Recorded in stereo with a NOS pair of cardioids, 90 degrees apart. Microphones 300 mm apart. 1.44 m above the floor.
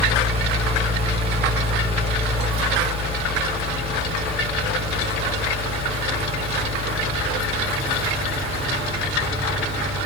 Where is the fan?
20° right, 0.8 m.